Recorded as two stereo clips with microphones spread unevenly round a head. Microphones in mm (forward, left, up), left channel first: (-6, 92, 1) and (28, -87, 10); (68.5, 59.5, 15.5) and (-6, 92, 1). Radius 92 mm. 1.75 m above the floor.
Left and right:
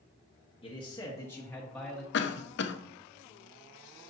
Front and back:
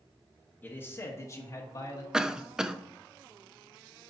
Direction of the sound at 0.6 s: 40° left.